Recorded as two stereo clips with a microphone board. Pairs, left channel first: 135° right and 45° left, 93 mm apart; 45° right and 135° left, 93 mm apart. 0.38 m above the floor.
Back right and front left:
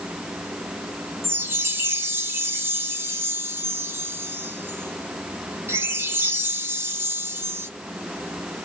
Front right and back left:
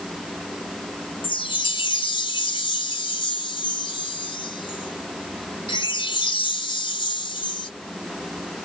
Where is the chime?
20° right, 1.0 m.